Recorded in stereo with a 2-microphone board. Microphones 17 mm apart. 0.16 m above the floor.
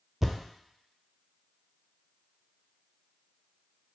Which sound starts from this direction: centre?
A thud, at 0.2 s.